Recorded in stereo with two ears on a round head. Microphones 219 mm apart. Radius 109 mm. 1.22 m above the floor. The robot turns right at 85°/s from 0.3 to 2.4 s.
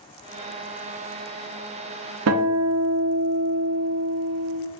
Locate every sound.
2.3 s a guitar: 60° right (ahead or behind), 0.5 m; by 4.6 s 65° right (ahead or behind), 0.5 m